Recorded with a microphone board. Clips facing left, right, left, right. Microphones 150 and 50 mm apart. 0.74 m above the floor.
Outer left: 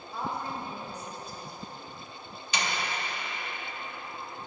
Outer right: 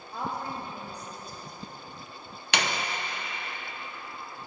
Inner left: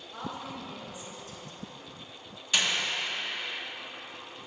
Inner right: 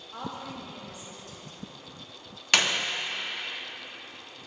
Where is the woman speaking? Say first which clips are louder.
Even, inner right 1 dB; 60° right (ahead or behind), 2.5 m.